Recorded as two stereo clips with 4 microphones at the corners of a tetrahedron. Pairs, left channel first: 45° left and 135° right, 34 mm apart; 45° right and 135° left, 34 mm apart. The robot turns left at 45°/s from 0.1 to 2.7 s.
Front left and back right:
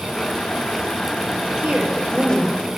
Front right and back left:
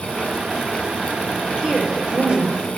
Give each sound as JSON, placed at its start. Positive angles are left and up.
{"t": 1.6, "sound": "a woman speaking", "azimuth_deg": -150, "distance_m": 3.0}